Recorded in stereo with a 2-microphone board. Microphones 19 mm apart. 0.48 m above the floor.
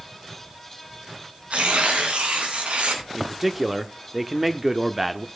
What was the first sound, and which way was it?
Tearing paper, 70° right (ahead or behind).